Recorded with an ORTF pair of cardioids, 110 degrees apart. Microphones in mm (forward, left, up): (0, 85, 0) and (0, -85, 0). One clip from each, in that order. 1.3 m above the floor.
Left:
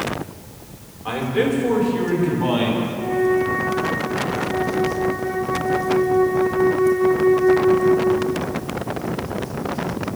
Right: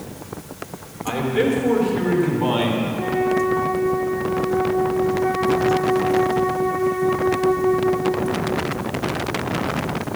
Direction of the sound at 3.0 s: 25° right.